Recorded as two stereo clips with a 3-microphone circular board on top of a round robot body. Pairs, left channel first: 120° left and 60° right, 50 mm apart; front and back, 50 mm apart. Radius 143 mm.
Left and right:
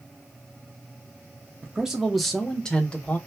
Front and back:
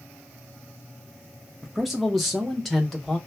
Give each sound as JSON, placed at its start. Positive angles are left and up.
{"t": 1.6, "sound": "a man speaking", "azimuth_deg": -100, "distance_m": 1.0}